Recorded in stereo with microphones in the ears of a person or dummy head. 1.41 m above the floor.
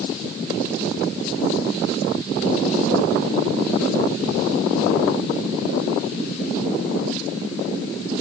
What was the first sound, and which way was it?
Only background noise.